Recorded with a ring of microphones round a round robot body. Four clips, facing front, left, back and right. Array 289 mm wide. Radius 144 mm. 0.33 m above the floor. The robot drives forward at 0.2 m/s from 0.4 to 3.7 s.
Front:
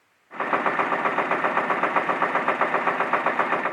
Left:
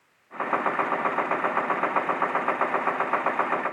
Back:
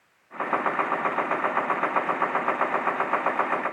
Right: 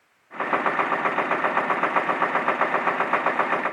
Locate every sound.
Only background noise.